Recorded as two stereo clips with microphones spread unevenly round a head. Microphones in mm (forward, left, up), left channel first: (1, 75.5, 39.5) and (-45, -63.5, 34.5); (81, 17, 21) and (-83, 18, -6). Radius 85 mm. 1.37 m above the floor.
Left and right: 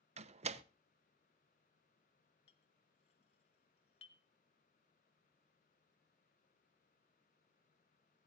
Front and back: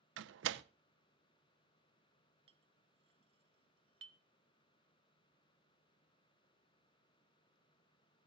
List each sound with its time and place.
0.2 s a door slam: 155° right, 0.7 m
2.5 s a clink: 120° left, 1.2 m